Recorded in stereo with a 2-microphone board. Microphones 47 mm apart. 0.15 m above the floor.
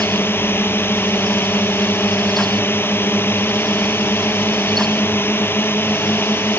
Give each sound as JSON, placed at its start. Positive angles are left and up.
{"t": 0.0, "sound": "a drone", "side_deg": 55}